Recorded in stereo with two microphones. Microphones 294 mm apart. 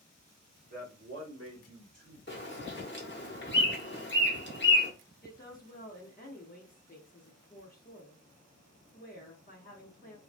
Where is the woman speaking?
30° left (ahead or behind), 0.7 m.